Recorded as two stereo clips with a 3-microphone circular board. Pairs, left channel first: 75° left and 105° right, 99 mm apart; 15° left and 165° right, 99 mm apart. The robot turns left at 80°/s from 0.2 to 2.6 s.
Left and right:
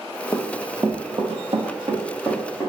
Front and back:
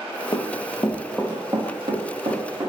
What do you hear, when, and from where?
0.3 s running footsteps: 30° left, 0.5 m; by 2.7 s 150° left, 1.5 m